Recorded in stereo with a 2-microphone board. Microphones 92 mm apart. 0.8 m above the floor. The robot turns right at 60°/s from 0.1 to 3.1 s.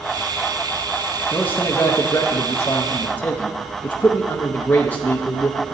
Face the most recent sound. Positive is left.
turn(degrees=140)